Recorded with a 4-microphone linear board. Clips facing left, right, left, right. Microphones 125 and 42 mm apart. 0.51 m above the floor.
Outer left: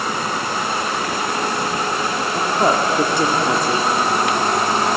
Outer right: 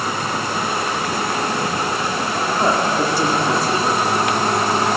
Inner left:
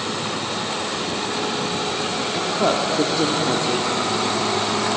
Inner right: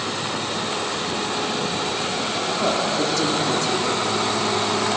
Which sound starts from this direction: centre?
A woman speaking, at 2.3 s.